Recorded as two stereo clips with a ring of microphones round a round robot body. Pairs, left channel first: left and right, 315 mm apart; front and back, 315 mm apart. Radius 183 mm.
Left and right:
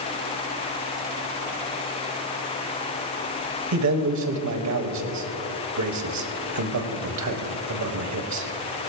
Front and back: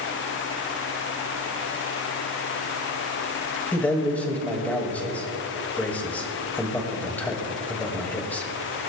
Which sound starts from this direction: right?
A man speaking, at 3.7 s.